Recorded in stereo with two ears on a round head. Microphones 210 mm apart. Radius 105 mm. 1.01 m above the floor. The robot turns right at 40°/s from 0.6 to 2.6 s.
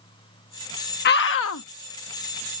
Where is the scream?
45° left (ahead or behind); by 1.6 s 65° left (ahead or behind).